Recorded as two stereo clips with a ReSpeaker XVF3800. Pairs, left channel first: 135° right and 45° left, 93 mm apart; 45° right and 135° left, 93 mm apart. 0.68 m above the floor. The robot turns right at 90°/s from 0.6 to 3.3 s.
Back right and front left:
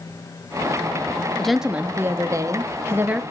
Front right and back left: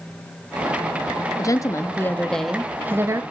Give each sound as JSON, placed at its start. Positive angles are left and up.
{"t": 1.4, "sound": "a woman speaking", "azimuth_deg": -55, "distance_m": 1.1}